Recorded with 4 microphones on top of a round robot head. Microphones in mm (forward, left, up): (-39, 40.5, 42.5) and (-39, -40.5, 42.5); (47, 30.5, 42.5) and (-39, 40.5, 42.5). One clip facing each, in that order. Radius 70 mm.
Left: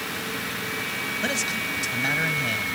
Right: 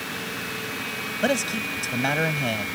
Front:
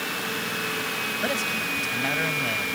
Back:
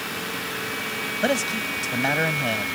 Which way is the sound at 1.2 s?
125° right.